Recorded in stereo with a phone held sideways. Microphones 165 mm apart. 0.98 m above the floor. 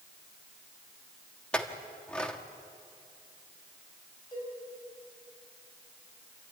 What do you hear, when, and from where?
1.5 s a clink: 5° left (ahead or behind), 1.4 m
4.3 s a cowbell: 30° left (ahead or behind), 7 m